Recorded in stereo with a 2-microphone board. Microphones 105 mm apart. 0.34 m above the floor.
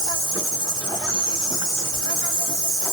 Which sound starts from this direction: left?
An insect, at 0.0 s.